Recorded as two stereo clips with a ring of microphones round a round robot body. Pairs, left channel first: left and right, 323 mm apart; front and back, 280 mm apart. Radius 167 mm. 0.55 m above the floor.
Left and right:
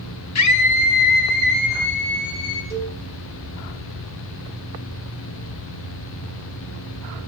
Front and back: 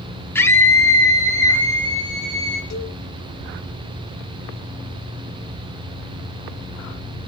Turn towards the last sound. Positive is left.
turn(degrees=25)